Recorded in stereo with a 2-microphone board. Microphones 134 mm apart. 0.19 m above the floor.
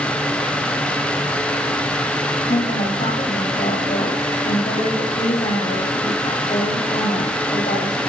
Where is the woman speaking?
70° left (ahead or behind), 5 m.